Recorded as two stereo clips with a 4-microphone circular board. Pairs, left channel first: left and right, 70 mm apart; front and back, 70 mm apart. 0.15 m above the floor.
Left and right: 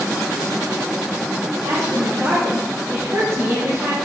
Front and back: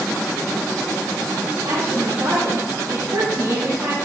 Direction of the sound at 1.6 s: 130° right.